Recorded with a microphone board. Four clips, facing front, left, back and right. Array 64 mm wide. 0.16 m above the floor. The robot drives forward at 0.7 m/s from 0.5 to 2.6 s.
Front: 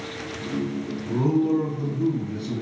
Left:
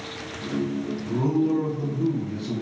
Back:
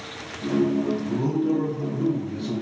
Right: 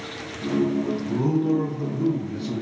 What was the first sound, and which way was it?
A man speaking, 5° left.